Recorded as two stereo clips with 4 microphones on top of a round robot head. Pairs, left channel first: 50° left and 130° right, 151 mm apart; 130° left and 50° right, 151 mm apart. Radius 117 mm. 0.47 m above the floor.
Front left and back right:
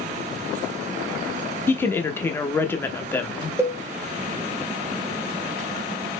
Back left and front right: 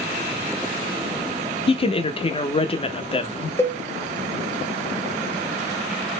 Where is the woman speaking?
115° left, 1.0 m.